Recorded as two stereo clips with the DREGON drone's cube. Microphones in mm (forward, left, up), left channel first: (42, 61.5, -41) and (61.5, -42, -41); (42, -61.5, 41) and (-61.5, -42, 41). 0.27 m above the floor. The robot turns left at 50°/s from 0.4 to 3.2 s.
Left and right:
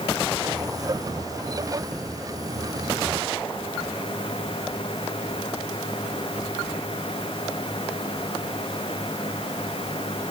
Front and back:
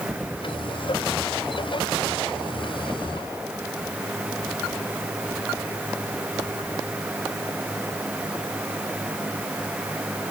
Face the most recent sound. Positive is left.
No sound to turn to.